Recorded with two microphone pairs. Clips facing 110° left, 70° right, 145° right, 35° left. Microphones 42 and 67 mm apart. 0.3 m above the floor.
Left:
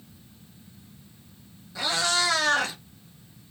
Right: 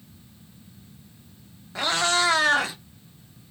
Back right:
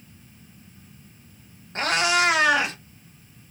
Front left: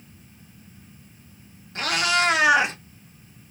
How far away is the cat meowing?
About 0.9 m.